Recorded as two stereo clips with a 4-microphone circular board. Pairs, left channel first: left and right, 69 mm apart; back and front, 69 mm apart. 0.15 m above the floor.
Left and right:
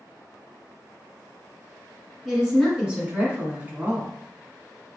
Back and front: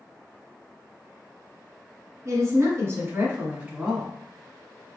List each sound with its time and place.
2.2 s a woman speaking: 5° right, 1.7 m; by 4.1 s 75° right, 1.4 m